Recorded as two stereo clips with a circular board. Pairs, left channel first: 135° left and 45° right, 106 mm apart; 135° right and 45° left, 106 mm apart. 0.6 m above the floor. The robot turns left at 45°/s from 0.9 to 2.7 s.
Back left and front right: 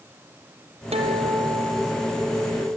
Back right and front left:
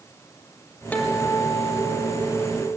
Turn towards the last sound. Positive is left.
turn(degrees=-140)